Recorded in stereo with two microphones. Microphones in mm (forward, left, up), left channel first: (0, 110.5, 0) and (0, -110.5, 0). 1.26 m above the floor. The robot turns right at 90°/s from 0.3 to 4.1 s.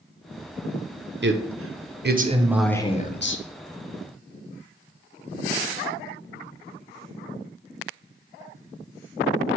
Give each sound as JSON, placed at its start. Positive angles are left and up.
{"t": 1.2, "sound": "a man speaking", "azimuth_deg": -125, "distance_m": 0.5}